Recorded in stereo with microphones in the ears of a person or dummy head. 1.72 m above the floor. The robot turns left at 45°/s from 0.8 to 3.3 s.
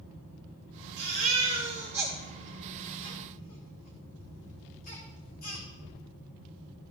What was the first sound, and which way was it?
A baby crying, 50° right (ahead or behind).